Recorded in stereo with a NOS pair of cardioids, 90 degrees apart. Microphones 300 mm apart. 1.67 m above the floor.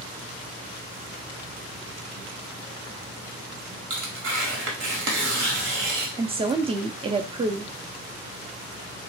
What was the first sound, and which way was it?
Tearing paper, 55° right.